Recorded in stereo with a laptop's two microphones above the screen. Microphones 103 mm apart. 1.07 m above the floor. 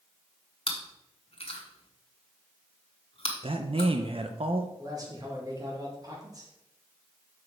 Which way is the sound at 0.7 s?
60° left (ahead or behind).